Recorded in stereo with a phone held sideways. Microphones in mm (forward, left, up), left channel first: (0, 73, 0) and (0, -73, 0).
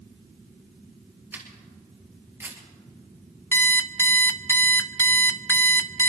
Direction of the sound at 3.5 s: 15° left (ahead or behind).